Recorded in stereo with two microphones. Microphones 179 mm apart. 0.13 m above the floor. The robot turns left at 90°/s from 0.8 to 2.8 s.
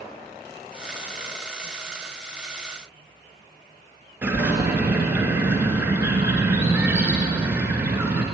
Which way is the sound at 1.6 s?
45° right (ahead or behind).